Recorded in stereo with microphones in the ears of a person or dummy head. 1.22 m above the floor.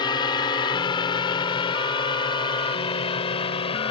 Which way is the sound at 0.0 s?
25° left (ahead or behind).